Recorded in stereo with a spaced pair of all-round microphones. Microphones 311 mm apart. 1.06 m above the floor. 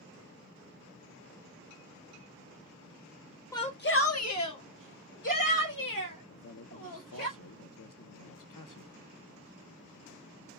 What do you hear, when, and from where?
3.5 s a shout: 10° left (ahead or behind), 0.5 m; by 7.3 s 85° left, 3 m
6.3 s a man speaking: 70° left (ahead or behind), 0.9 m